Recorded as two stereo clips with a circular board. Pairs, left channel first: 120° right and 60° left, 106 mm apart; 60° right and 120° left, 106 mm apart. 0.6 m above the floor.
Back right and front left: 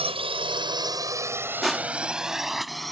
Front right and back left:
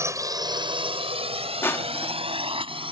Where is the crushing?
30° right.